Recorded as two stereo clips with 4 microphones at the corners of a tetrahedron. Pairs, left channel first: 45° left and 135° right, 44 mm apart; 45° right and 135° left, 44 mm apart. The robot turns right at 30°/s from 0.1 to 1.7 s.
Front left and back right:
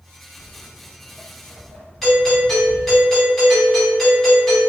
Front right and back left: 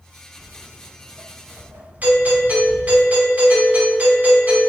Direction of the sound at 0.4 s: 115° left.